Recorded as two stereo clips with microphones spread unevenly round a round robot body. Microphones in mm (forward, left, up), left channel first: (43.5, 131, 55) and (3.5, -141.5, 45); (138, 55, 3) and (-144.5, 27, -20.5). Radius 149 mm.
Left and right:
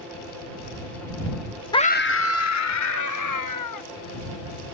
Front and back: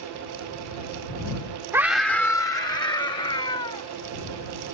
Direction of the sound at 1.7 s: 135° left.